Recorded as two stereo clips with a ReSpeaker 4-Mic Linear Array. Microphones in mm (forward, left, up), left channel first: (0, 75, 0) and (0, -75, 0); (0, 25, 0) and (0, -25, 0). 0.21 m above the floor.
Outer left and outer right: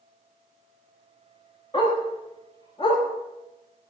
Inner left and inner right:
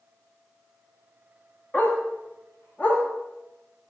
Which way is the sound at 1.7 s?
40° left (ahead or behind).